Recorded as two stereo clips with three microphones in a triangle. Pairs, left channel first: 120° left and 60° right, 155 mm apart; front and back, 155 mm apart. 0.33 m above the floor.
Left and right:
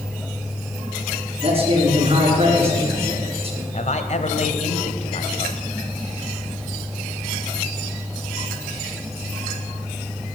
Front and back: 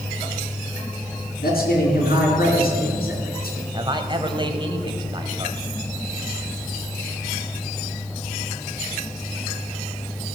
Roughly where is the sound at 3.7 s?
Behind left.